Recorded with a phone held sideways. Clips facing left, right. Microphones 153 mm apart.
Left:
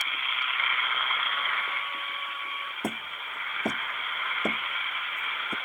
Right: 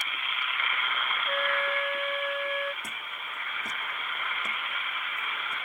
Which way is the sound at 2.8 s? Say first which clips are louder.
Left 8 dB; 60° left (ahead or behind).